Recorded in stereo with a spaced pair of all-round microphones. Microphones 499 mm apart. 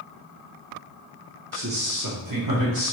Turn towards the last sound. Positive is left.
turn(degrees=-45)  # may be behind; listen again after turning